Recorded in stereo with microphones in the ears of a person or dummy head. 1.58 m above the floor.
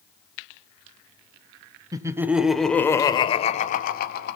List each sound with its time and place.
1.9 s laughter: 20° right (ahead or behind), 1.4 m; by 4.4 s 60° left (ahead or behind), 1.7 m